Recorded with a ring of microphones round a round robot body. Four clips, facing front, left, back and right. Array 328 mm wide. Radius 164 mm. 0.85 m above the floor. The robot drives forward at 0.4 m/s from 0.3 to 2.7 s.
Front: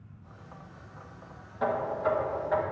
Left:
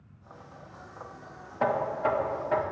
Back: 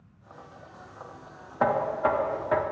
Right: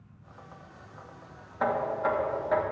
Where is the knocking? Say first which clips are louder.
Left 1 dB, back 4 dB; 165° left, 0.7 m; by 2.6 s 170° left, 1.1 m.